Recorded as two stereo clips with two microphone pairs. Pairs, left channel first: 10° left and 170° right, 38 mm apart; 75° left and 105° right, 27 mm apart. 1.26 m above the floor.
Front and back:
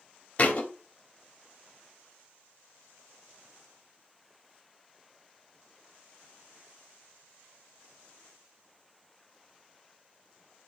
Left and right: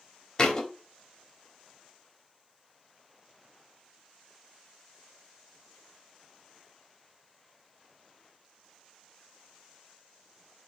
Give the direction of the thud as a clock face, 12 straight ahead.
11 o'clock.